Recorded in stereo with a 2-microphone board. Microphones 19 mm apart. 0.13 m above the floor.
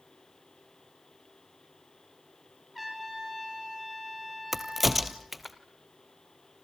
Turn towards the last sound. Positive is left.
turn(degrees=-5)  # may be behind; listen again after turning